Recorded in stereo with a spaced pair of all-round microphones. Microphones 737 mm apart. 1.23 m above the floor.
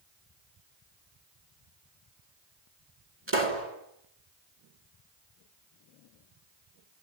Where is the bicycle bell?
I don't hear a bicycle bell.